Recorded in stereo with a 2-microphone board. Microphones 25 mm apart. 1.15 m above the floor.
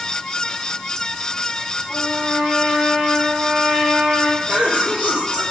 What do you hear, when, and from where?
1.9 s a trumpet: 60° right (ahead or behind), 3.5 m
4.5 s a cough: 60° right (ahead or behind), 5 m